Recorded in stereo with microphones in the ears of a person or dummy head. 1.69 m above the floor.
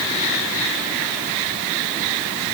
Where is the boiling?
No boiling in this recording.